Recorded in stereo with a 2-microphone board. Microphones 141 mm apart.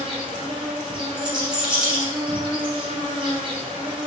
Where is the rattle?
5° right (ahead or behind), 1.6 m.